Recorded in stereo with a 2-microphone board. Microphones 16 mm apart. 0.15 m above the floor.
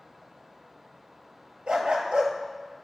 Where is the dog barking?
70° right (ahead or behind), 0.9 m.